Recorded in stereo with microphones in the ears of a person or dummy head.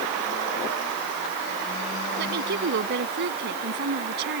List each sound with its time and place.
2.2 s a woman speaking: 60° right (ahead or behind)